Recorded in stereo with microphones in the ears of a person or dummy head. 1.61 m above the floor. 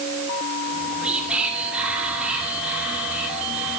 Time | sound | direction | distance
0.7 | whispering | 5° left (ahead or behind) | 1.3 m